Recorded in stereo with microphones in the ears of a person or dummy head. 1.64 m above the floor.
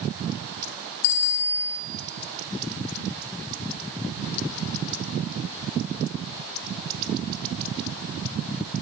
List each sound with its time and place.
1.0 s a bicycle bell: 80° left, 4.5 m